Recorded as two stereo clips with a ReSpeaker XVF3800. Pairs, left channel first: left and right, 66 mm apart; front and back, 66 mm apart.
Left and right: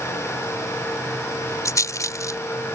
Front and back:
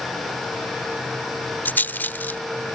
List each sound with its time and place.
1.6 s a rattle: 60° left